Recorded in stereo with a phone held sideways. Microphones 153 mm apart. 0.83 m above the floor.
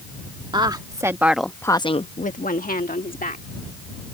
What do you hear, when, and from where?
0.5 s a woman speaking: 30° right (ahead or behind); by 3.5 s 70° left (ahead or behind)